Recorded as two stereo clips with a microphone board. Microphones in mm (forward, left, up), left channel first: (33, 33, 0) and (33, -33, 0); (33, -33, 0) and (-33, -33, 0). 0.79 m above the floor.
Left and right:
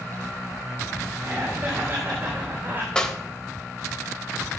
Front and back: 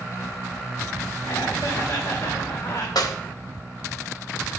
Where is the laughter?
30° right, 5.5 m; by 3.0 s 35° right, 3 m.